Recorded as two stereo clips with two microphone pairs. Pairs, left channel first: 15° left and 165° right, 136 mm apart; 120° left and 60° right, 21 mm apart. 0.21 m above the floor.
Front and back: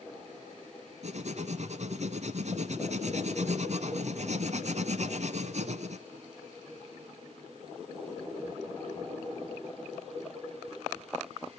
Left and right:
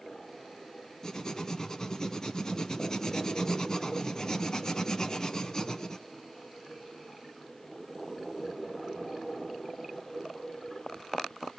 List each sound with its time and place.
1.0 s writing: straight behind, 0.9 m